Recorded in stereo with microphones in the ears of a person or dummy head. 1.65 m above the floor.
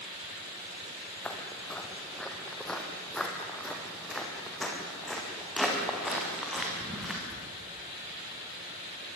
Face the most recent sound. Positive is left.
turn(degrees=0)  # may be behind; listen again after turning